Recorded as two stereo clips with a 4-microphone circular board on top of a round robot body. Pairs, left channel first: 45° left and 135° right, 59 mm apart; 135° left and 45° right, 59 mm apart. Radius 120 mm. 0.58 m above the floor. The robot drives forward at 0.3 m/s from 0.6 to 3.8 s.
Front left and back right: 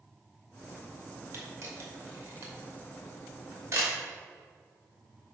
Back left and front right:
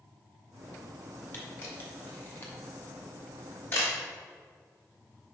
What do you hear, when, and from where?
1.3 s a camera shutter: 165° right, 2 m; by 4.0 s 170° right, 3 m